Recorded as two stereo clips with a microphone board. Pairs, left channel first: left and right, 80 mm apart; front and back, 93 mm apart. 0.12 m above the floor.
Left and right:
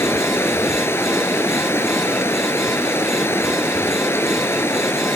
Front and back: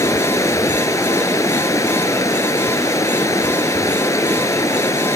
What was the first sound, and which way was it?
Running water, 45° left.